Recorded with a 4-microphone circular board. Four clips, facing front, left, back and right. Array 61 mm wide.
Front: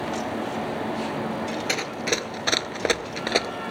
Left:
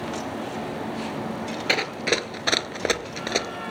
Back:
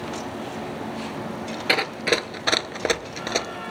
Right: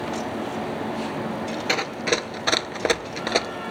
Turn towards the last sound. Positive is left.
turn(degrees=-30)